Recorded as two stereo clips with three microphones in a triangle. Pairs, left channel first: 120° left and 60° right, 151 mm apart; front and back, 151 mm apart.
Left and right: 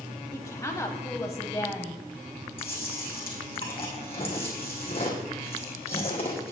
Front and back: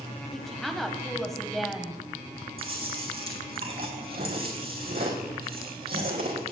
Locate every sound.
0.3 s a woman speaking: 85° left, 1.0 m
2.6 s chewing: 170° left, 3 m